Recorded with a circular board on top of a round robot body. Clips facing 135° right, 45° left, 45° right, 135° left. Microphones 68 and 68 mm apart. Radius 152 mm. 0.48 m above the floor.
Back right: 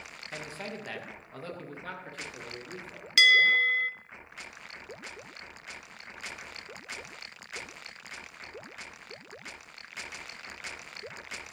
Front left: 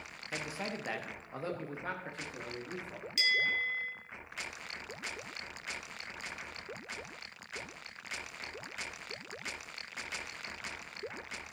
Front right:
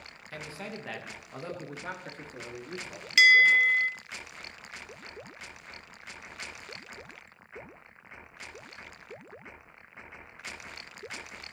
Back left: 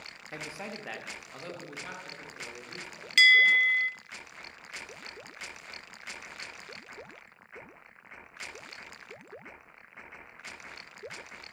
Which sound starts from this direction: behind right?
A bell, at 3.2 s.